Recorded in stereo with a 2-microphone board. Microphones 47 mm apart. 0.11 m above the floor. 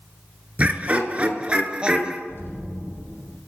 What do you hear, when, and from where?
0.6 s laughter: 30° right (ahead or behind), 1.3 m; by 2.2 s 20° right (ahead or behind), 1.5 m
2.3 s an explosion: 60° left (ahead or behind), 5.5 m